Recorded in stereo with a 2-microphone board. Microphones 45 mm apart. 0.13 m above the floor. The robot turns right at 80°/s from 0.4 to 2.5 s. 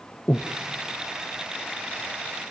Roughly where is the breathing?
Left.